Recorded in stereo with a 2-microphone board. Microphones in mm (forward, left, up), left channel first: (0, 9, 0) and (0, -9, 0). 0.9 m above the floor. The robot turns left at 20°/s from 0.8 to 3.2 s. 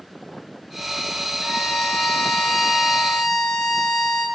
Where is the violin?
80° left, 9.5 m; by 4.2 s 40° left, 9.5 m.